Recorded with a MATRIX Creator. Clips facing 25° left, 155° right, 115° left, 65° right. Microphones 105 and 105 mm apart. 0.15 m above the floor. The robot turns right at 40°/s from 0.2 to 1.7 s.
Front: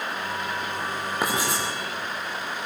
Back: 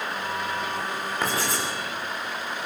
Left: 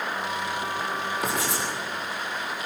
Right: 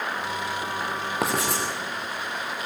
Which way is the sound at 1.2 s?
55° right.